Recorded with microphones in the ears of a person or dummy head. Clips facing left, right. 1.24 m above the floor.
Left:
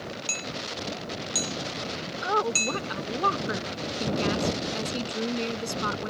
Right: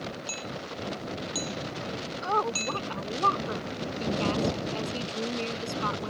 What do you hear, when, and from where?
0.3 s hammering: 25° left (ahead or behind)
2.2 s a woman speaking: 10° left (ahead or behind)